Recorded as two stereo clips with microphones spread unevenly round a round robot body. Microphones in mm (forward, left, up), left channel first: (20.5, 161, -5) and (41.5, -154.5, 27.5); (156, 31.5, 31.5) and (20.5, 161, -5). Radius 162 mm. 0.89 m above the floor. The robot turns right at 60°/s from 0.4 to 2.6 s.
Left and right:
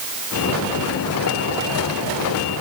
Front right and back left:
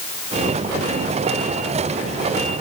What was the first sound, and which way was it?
Only background noise.